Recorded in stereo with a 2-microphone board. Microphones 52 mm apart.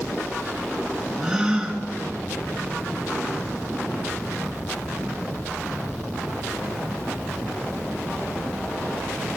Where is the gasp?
15° right (ahead or behind), 2 m.